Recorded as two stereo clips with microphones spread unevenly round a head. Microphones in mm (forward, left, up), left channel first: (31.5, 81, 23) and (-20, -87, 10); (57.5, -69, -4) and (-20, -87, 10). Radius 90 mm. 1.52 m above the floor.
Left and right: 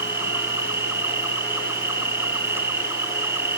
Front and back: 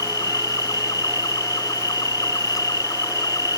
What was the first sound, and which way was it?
An insect, 30° right.